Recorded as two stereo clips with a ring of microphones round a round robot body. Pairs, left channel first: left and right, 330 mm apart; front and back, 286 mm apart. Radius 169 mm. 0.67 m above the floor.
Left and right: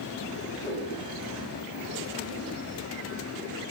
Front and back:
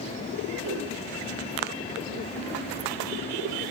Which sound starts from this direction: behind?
A whoosh, at 0.6 s.